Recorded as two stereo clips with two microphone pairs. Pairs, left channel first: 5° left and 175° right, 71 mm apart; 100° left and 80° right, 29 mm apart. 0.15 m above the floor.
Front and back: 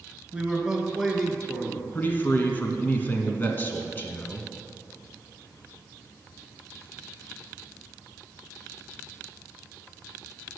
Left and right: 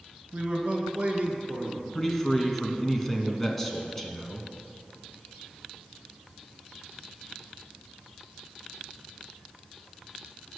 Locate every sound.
0.3 s a man speaking: 105° right, 1.7 m; by 1.9 s 60° right, 1.8 m
1.9 s a man speaking: 30° left, 1.1 m